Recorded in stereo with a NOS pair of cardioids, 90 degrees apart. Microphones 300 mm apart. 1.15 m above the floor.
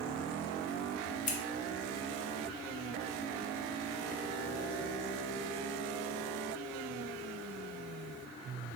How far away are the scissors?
About 0.7 m.